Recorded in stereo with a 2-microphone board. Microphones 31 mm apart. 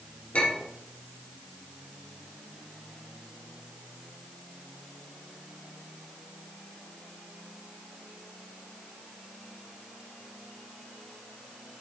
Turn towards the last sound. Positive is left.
turn(degrees=45)  # may be behind; listen again after turning